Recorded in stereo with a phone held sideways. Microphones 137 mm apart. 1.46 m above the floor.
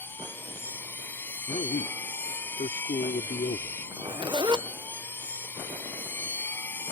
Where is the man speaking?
80° left.